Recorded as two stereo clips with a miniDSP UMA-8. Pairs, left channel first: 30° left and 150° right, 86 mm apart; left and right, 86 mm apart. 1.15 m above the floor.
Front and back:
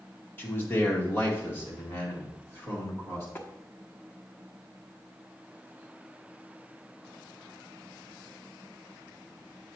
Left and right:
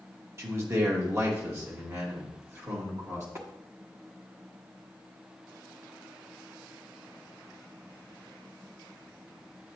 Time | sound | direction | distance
0.4 | a man speaking | 35° right | 1.5 m
3.4 | tapping | 35° right | 1.1 m